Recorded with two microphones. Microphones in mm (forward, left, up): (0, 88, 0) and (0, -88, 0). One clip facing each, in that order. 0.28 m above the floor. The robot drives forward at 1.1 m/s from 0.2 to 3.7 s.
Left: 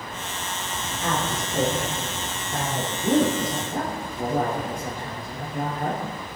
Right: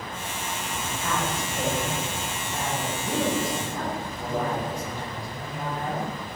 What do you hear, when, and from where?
1.0 s a woman speaking: 65° left (ahead or behind), 7.5 m; by 6.0 s 50° left (ahead or behind), 9 m